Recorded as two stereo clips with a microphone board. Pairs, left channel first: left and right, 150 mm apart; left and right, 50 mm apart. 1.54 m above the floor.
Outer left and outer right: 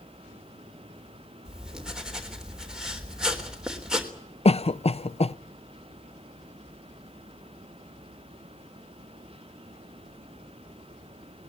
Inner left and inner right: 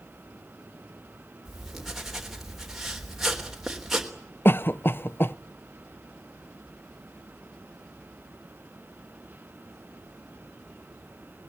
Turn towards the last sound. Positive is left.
turn(degrees=45)  # may be behind; listen again after turning